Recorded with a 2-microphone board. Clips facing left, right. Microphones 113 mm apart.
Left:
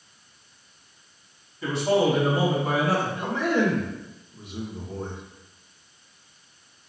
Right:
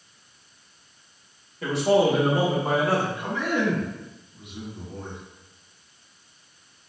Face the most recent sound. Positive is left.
turn(degrees=40)  # may be behind; listen again after turning